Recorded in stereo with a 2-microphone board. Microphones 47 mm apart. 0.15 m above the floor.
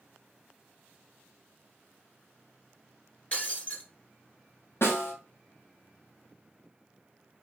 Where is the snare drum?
55° left (ahead or behind), 3 m.